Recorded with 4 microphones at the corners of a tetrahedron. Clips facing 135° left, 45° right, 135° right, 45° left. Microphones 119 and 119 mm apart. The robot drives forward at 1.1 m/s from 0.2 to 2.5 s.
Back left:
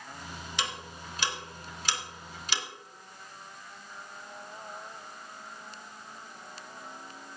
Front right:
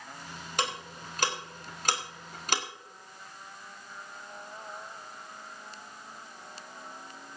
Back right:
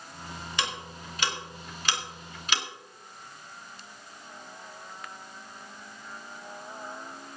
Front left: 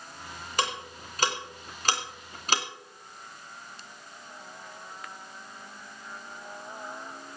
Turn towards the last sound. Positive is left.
turn(degrees=-5)